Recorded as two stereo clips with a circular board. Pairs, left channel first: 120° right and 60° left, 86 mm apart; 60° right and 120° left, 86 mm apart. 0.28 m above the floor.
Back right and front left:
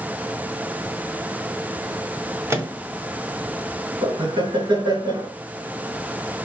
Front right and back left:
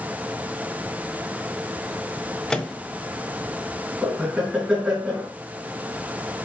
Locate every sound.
2.5 s a microwave: 20° left, 1.4 m
4.0 s laughter: 40° left, 3 m